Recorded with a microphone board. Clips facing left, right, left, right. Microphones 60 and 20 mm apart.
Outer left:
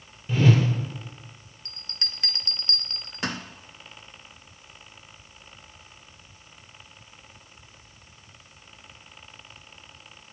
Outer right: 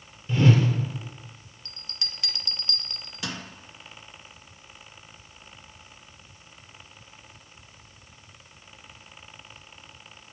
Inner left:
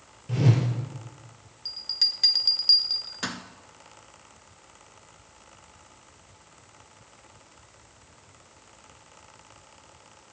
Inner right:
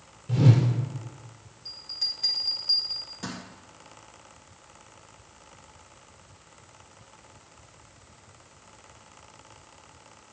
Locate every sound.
0.3 s a whoosh: 15° left (ahead or behind), 1.9 m
1.6 s a bell: 45° left (ahead or behind), 0.7 m